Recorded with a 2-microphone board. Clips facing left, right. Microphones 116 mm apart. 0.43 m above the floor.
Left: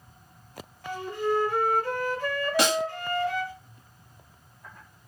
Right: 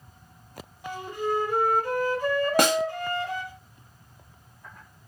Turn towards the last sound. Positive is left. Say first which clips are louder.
# right 2 dB
turn(degrees=-50)  # may be behind; listen again after turning